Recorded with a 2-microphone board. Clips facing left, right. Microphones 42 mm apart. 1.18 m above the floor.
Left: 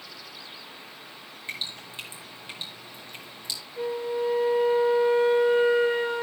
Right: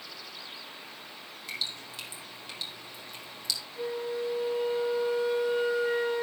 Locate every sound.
1.5 s dripping: 30° left (ahead or behind), 5 m
3.8 s a flute: 40° left (ahead or behind), 4 m